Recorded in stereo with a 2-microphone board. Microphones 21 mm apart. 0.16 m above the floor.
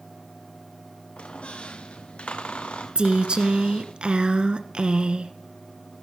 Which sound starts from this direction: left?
A squeak, at 1.2 s.